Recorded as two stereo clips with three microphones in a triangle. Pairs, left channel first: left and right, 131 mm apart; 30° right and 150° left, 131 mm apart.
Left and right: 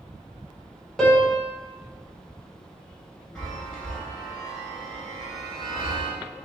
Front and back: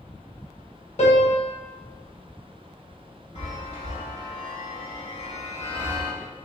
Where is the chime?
5° left, 1.6 m.